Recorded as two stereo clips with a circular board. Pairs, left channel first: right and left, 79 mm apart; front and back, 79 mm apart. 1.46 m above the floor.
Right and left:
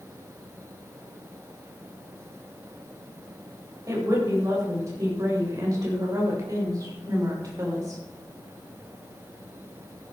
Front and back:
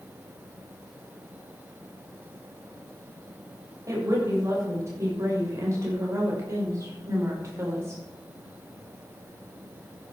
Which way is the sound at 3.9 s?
135° left.